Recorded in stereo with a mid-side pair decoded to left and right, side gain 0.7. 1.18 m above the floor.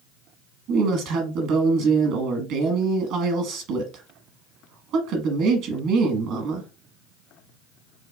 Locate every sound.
0.7 s a woman speaking: 60° right, 1.1 m